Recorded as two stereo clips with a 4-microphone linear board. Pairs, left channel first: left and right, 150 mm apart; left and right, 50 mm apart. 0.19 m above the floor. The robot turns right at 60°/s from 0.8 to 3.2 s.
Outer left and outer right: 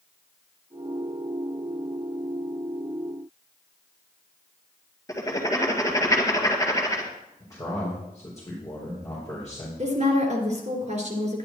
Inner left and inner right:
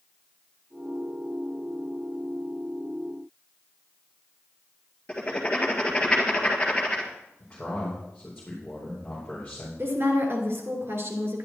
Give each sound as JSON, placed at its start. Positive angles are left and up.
{"t": 5.1, "sound": "writing", "side_deg": 20, "distance_m": 1.7}
{"t": 7.4, "sound": "a man speaking", "side_deg": 20, "distance_m": 4.0}
{"t": 9.8, "sound": "a woman speaking", "side_deg": -50, "distance_m": 3.0}